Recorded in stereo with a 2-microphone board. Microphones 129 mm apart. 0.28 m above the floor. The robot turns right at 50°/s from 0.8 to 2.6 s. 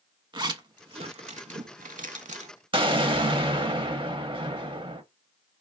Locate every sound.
0.3 s a zipper: 35° right (ahead or behind), 0.6 m; by 2.5 s 55° right (ahead or behind), 0.6 m
2.7 s an explosion: 40° right (ahead or behind), 0.6 m